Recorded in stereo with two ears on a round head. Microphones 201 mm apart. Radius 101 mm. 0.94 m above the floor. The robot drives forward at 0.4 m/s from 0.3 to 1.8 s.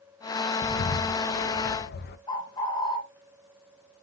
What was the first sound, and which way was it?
A bird, 35° left (ahead or behind).